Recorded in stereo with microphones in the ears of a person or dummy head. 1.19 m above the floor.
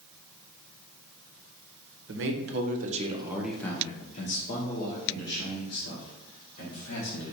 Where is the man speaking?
60° right (ahead or behind), 0.9 m; by 7.3 s 65° left (ahead or behind), 2.5 m.